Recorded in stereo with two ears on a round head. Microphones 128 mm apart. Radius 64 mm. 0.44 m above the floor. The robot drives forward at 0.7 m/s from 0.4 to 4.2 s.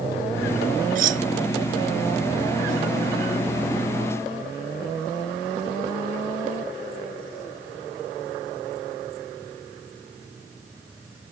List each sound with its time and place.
0.9 s cutlery clinking: 65° right (ahead or behind); by 1.2 s 60° right (ahead or behind)